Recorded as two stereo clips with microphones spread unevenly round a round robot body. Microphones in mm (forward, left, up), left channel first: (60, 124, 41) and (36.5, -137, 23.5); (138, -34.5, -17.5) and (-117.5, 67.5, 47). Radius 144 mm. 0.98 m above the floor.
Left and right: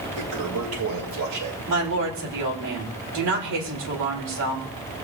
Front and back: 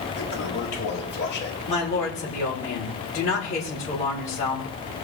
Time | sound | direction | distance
0.2 | a toilet flushing | 80° right | 3 m
1.7 | a woman speaking | 90° right | 3.5 m